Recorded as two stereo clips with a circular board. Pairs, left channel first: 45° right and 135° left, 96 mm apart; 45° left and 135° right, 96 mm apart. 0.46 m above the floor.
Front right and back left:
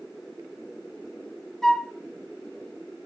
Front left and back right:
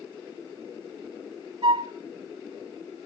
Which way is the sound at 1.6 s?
130° right.